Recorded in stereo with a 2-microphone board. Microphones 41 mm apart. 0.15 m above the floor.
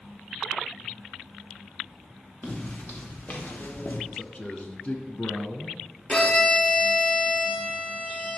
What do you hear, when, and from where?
2.4 s footsteps: 40° left (ahead or behind), 3.5 m; by 4.0 s 50° left (ahead or behind), 1.6 m
4.1 s a man speaking: 35° left (ahead or behind), 1.7 m
6.1 s a violin: 30° left (ahead or behind), 3 m